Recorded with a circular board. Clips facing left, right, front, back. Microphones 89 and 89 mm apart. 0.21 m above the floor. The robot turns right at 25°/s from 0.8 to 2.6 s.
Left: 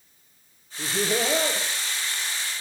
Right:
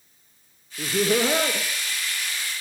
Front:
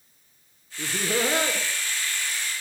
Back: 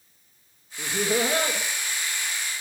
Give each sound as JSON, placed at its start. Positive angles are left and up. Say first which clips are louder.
{"t": 0.8, "sound": "laughter", "louder": "right 4 dB, back 1 dB", "azimuth_deg": -85, "distance_m": 2.0}